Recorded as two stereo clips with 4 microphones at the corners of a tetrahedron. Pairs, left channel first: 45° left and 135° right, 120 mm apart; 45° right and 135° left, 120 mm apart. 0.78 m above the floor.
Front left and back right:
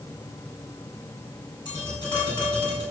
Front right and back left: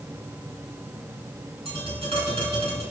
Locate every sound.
1.6 s tapping: 95° left, 5 m